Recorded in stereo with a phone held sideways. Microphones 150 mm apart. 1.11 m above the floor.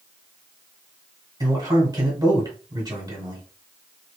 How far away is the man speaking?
About 1.6 m.